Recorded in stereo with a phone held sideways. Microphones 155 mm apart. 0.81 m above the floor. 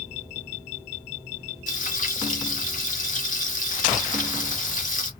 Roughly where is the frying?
Left.